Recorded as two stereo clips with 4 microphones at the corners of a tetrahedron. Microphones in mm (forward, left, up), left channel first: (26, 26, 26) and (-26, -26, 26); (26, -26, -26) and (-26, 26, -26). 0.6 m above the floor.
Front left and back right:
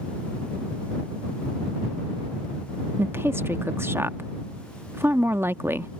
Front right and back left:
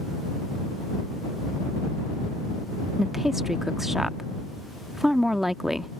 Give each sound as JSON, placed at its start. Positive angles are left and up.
{"t": 3.0, "sound": "a woman speaking", "azimuth_deg": -145}